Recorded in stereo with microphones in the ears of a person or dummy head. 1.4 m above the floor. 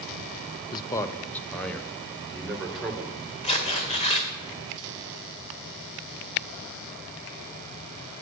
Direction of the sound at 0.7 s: 25° left (ahead or behind).